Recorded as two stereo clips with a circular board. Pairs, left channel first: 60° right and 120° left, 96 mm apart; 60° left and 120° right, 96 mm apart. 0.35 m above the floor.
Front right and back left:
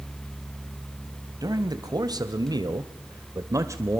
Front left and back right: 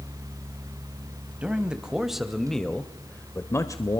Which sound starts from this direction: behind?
A man speaking, at 1.4 s.